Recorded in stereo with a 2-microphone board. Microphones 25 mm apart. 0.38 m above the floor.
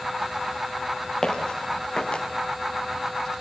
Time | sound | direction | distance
1.2 | footsteps | 30° left (ahead or behind) | 5 m